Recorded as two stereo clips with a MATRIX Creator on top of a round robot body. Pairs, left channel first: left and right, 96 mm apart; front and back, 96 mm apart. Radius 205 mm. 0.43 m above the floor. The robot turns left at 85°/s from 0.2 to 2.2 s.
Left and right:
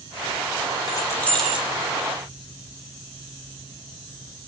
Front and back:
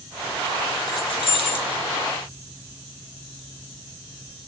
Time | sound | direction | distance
0.9 | keys jangling | 45° left | 1.3 m